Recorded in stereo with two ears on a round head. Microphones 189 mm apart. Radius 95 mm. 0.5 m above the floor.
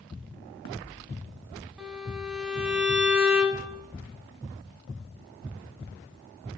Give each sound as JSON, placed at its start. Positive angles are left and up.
{"t": 1.8, "sound": "a violin", "side_deg": -5, "distance_m": 1.6}